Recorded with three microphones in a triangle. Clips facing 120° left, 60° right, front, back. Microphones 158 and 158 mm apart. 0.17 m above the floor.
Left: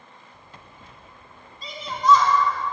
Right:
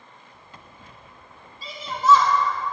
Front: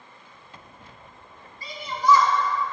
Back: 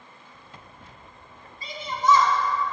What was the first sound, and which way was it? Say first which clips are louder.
A shout: even, front 1 dB; 140° right.